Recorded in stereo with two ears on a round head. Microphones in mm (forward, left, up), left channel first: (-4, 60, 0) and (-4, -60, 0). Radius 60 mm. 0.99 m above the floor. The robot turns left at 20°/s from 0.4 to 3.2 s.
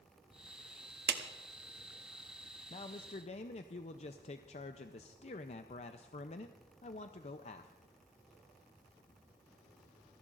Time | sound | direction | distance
1.1 | a clap | 80° right | 0.9 m
2.7 | a man speaking | 40° left (ahead or behind) | 0.5 m